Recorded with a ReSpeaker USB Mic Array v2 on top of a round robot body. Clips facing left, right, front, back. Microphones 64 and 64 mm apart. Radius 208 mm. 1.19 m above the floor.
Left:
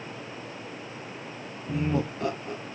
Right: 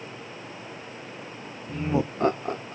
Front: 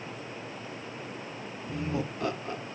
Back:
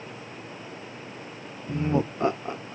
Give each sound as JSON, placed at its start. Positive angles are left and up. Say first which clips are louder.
{"t": 1.7, "sound": "laughter", "louder": "right 1 dB, back 7 dB", "azimuth_deg": 145, "distance_m": 0.6}